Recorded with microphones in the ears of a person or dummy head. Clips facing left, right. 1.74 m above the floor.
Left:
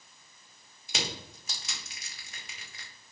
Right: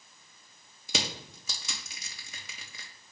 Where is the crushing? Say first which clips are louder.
Right 2 dB; 80° right, 1.5 m.